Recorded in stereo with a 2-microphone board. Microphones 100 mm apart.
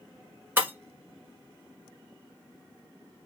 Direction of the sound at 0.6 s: 25° right (ahead or behind).